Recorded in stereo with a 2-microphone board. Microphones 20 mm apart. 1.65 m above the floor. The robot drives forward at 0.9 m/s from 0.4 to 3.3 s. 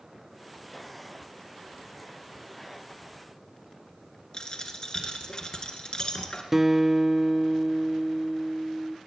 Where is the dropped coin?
35° left (ahead or behind), 2 m.